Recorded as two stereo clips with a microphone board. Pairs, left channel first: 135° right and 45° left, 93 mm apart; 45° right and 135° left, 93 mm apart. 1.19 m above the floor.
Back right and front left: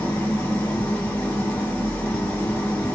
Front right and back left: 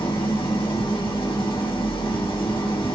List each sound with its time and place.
0.0 s an engine running: 65° right, 1.2 m